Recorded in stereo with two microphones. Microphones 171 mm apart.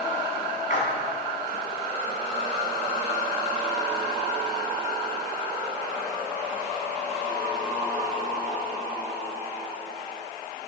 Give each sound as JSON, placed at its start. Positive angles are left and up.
{"t": 0.7, "sound": "a splash", "side_deg": 50, "distance_m": 2.5}